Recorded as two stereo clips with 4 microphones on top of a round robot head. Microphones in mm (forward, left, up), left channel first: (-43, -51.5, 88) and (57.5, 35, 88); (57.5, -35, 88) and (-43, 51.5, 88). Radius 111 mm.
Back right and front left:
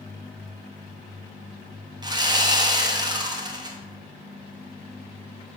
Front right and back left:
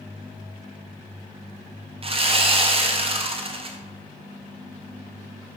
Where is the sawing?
95° left, 1.6 m.